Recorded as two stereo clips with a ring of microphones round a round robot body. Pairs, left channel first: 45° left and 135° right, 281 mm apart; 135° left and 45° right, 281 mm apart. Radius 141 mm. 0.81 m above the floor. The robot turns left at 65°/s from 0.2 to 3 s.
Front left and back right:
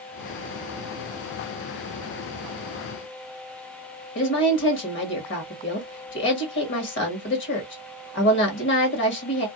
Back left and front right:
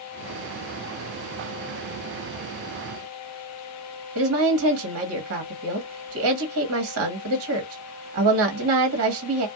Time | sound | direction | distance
4.2 | a woman speaking | 5° right | 1.3 m